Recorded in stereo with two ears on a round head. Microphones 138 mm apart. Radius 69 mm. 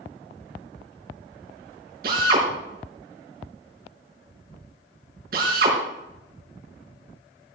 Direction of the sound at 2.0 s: 70° right (ahead or behind).